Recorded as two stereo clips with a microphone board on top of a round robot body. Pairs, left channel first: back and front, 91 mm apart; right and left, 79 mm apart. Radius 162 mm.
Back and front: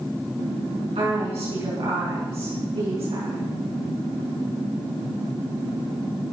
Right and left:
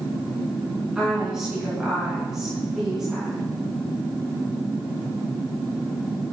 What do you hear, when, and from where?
0.9 s a woman speaking: 5° left, 5.5 m